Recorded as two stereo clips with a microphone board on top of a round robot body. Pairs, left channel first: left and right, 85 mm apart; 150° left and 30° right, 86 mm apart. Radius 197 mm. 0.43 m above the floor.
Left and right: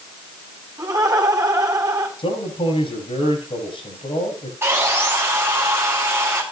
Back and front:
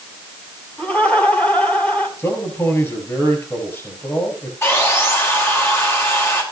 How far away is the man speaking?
About 6 m.